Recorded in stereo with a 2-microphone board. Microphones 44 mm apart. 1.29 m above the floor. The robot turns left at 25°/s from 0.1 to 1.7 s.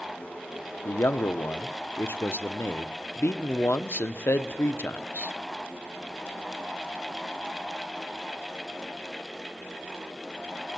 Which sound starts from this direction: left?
A man speaking, at 0.8 s.